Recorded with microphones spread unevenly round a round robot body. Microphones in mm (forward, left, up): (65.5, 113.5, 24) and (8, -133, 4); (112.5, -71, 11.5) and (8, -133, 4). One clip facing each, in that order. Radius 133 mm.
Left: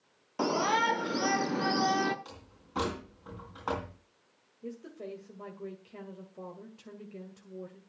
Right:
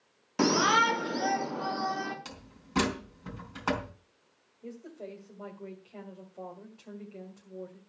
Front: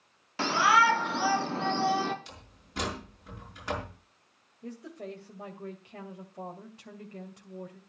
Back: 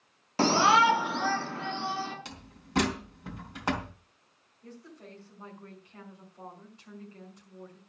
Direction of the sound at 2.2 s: 155° right.